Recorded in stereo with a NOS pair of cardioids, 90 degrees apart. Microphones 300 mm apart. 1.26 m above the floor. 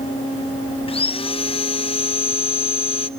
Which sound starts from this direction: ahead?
Sawing, at 0.9 s.